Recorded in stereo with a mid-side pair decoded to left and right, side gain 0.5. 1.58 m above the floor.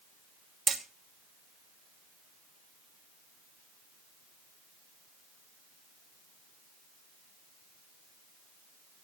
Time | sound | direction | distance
0.7 | hammering | 45° right | 3 m